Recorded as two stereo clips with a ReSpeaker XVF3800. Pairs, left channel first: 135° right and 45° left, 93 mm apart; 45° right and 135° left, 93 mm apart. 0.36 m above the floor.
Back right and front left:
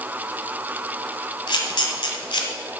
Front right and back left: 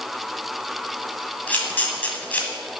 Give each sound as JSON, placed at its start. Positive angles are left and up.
{"t": 1.5, "sound": "a camera shutter", "azimuth_deg": -115, "distance_m": 1.6}